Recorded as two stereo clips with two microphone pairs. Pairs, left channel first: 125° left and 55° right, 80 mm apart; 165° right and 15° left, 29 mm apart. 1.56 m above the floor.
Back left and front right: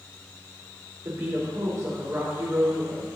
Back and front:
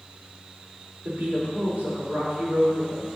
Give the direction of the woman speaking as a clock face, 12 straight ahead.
12 o'clock.